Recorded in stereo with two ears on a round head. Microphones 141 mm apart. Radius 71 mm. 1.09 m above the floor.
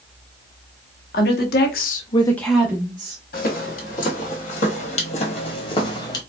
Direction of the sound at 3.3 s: 60° left (ahead or behind).